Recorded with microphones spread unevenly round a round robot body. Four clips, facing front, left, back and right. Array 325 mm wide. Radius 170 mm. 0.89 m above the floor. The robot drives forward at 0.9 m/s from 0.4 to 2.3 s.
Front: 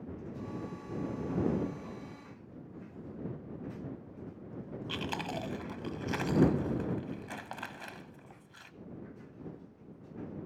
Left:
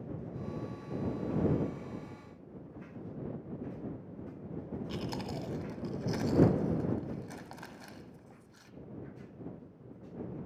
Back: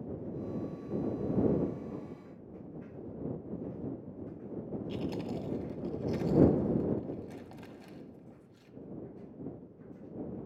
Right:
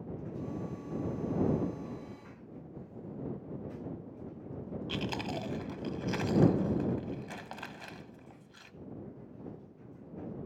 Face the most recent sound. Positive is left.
turn(degrees=-5)